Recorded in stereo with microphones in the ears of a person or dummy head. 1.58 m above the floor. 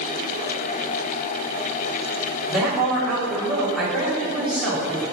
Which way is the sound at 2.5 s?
10° right (ahead or behind).